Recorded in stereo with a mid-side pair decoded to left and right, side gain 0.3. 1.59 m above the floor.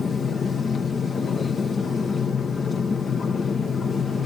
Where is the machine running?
65° left, 1.8 m.